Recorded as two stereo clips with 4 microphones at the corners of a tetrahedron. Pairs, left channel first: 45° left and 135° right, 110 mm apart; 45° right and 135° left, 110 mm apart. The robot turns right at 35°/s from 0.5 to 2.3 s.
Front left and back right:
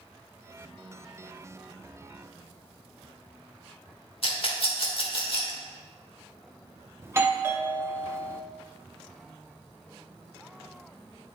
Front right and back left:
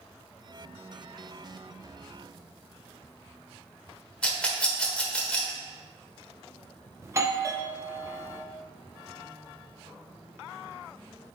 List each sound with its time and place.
4.2 s a rattle: 35° left, 1.2 m
7.0 s a doorbell: 175° left, 0.6 m